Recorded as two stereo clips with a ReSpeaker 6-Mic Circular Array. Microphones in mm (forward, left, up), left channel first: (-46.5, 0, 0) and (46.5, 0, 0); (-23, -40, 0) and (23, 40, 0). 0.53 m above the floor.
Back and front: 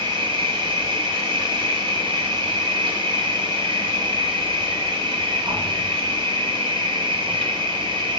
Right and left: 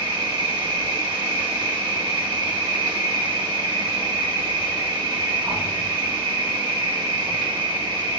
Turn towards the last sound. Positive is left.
turn(degrees=20)